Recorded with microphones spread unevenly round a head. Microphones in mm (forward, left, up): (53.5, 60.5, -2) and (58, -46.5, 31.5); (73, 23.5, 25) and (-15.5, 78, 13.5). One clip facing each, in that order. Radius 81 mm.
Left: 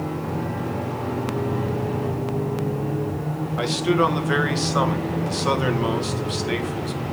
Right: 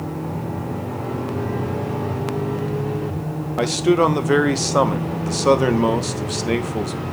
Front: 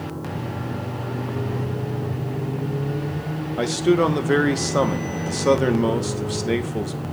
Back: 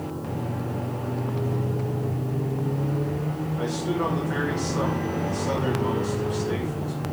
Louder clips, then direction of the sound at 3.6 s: Right 4 dB, front 9 dB; 35° right.